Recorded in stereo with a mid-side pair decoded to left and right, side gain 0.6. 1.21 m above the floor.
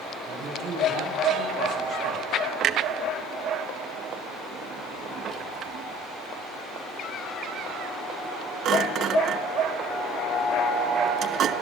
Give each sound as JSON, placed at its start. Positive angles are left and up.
{"t": 0.3, "sound": "a man speaking", "azimuth_deg": -50, "distance_m": 7.0}
{"t": 2.6, "sound": "a clunk", "azimuth_deg": -50, "distance_m": 0.8}